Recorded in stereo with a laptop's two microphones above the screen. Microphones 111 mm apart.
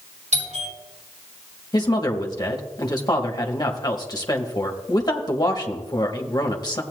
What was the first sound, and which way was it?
A doorbell, 80° right.